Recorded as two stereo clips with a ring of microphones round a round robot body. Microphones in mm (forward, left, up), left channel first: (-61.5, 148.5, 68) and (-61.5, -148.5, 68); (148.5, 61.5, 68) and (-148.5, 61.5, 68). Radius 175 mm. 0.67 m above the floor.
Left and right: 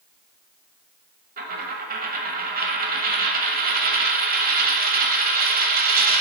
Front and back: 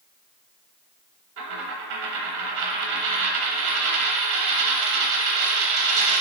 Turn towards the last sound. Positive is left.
turn(degrees=-150)